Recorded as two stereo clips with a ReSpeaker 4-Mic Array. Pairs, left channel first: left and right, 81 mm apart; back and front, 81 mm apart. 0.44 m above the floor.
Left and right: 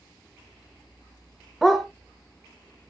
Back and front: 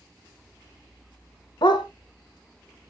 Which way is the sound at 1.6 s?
Straight behind.